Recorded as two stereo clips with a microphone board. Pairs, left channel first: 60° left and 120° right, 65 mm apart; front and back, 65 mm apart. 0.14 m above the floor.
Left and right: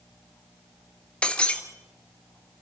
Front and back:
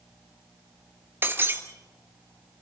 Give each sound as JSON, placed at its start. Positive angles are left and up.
{"t": 1.2, "sound": "breaking glass", "azimuth_deg": 130, "distance_m": 1.4}